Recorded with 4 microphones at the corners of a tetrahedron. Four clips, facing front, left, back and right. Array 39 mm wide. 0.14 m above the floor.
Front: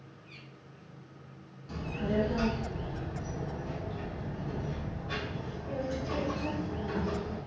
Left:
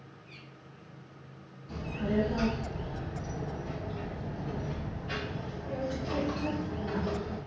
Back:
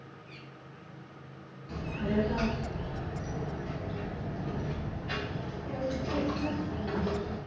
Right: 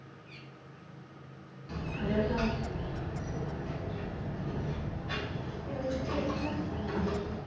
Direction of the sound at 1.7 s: 100° right.